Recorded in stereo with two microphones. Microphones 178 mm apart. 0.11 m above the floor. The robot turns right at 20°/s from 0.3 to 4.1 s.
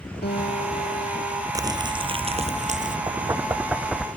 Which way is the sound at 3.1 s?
20° right (ahead or behind).